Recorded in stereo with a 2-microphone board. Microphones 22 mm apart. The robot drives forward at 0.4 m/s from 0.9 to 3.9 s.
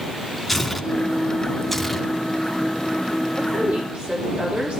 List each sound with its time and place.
0.5 s tearing paper: centre (ahead or behind), 1.9 m
3.4 s a woman speaking: 80° right, 10 m